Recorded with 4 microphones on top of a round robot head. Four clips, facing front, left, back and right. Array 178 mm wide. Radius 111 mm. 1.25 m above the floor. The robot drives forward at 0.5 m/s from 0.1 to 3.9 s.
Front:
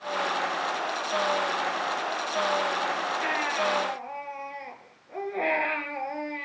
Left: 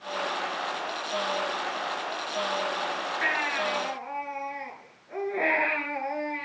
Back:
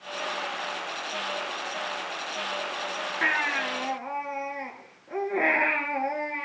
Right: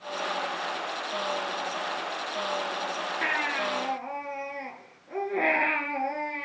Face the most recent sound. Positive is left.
turn(degrees=-155)